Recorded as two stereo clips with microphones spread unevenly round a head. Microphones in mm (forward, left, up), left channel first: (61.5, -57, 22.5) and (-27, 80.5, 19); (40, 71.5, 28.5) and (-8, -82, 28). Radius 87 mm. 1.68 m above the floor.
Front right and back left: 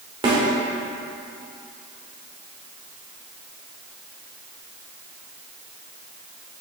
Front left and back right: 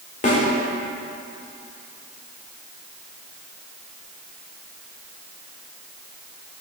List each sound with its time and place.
0.2 s a snare drum: 80° left, 1.6 m